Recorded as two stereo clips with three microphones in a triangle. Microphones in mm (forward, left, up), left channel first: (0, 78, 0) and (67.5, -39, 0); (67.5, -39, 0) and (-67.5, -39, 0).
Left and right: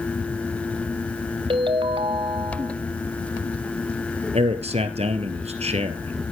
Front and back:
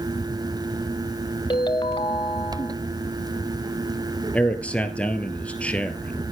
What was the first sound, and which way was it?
A ringtone, 35° right.